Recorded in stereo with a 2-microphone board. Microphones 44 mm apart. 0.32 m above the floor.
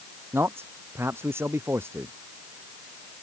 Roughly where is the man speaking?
Right.